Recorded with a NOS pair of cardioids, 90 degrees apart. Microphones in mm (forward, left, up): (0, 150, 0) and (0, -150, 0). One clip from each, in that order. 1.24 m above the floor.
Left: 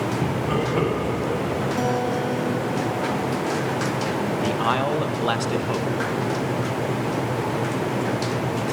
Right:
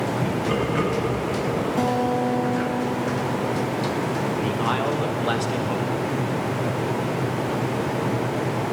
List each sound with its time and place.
0.2 s laughter: 5° left, 7.5 m; by 1.7 s 10° left, 7 m
1.8 s a guitar: 10° right, 1.7 m
4.4 s a man speaking: 25° left, 1.4 m